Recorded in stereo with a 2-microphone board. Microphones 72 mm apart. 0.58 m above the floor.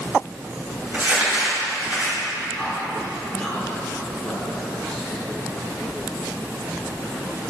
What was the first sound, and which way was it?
Crumpling, 30° right (ahead or behind).